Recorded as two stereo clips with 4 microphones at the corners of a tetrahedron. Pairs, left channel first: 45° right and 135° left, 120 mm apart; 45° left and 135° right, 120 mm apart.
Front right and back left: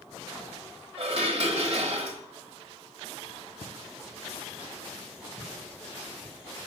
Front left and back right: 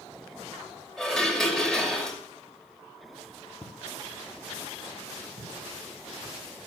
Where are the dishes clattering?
130° left, 1.2 m.